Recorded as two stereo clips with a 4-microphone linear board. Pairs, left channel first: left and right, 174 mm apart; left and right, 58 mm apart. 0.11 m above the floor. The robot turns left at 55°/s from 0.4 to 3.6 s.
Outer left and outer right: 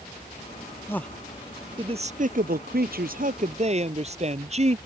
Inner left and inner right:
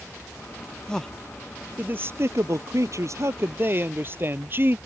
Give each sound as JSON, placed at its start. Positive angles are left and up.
{"t": 0.9, "sound": "a man speaking", "azimuth_deg": 15}